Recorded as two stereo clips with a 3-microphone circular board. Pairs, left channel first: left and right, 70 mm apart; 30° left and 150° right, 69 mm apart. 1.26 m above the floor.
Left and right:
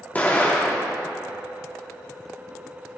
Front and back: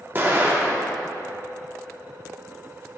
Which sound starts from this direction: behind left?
An explosion, at 0.1 s.